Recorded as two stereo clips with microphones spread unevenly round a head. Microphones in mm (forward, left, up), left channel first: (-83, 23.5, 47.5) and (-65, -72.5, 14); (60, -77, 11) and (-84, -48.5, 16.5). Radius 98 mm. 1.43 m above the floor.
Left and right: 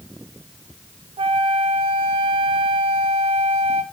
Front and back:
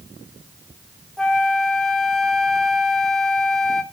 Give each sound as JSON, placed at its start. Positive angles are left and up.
{"t": 1.2, "sound": "a flute", "azimuth_deg": -100, "distance_m": 0.8}